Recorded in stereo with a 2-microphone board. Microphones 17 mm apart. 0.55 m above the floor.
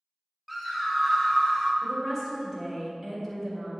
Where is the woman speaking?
10° left (ahead or behind), 2 m.